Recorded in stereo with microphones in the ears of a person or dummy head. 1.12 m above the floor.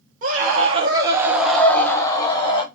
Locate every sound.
0.2 s a scream: 50° right (ahead or behind), 1.0 m; by 2.6 s 20° left (ahead or behind), 1.4 m